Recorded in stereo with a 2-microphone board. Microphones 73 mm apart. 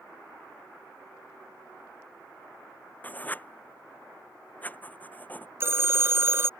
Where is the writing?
20° left (ahead or behind).